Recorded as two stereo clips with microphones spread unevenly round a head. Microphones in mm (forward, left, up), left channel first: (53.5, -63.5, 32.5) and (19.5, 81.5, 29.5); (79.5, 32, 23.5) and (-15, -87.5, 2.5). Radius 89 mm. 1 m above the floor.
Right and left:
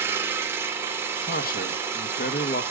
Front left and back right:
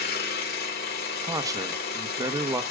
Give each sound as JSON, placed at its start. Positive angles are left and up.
{"t": 0.0, "sound": "an engine running", "azimuth_deg": 30, "distance_m": 3.0}
{"t": 1.2, "sound": "a man speaking", "azimuth_deg": -65, "distance_m": 1.5}